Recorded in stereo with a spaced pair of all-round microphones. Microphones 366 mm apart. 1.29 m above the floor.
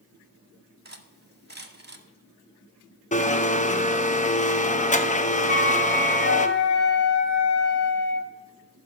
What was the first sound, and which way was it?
Cutlery clinking, 30° right (ahead or behind).